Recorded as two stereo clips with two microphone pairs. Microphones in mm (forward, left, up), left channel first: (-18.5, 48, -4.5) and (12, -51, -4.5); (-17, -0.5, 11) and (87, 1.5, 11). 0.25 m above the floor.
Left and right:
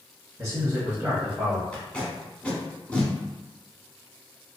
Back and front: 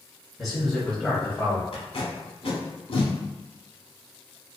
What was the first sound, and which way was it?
A man speaking, 80° right.